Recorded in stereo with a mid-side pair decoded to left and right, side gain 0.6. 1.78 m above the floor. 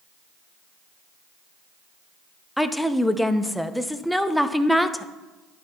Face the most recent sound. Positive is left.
turn(degrees=0)